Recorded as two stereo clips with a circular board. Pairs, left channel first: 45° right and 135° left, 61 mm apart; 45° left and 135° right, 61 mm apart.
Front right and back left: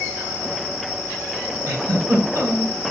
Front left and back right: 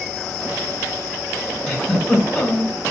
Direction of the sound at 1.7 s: 125° left.